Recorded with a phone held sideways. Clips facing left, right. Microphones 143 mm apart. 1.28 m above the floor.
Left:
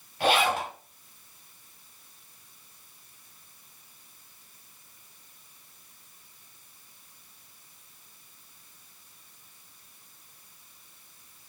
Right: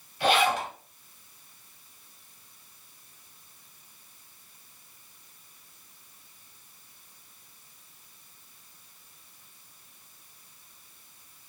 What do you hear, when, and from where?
0.2 s a zipper: 50° left (ahead or behind), 1.3 m